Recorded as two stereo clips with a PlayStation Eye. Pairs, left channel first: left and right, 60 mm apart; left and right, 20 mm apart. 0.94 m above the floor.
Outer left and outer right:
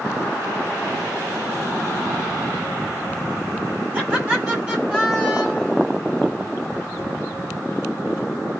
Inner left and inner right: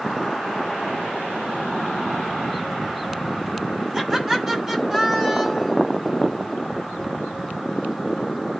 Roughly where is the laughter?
Right.